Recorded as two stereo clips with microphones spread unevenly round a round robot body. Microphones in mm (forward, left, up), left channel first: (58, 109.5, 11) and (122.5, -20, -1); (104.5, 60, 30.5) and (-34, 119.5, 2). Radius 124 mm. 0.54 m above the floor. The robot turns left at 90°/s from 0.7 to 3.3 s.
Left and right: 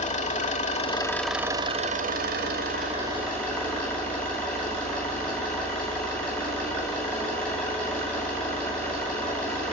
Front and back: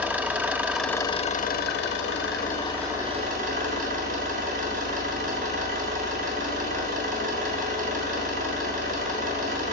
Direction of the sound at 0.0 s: 80° left.